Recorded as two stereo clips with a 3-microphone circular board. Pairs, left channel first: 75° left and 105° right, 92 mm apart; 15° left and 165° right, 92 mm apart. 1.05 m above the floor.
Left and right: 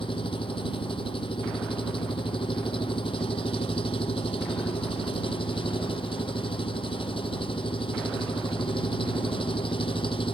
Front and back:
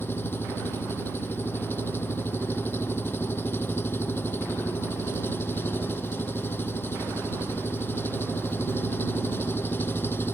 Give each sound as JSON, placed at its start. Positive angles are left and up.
{"t": 0.0, "sound": "an engine running", "azimuth_deg": 80}